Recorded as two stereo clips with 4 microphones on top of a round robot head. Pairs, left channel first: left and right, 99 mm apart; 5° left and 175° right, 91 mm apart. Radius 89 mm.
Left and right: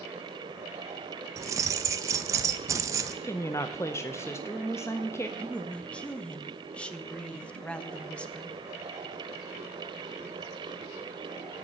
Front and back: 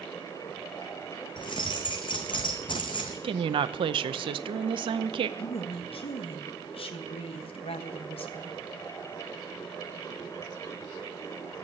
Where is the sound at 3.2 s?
160° left, 0.7 m.